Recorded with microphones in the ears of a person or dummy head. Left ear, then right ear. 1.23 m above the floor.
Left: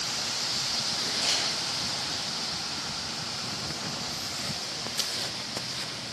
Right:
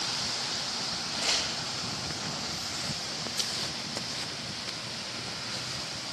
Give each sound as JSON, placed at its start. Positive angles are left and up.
{"t": 1.1, "sound": "crumpling", "side_deg": -65, "distance_m": 6.0}